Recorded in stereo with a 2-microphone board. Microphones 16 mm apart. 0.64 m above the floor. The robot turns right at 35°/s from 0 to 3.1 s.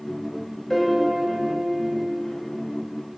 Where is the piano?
15° left (ahead or behind), 0.9 m; by 1.9 s centre (ahead or behind), 0.9 m.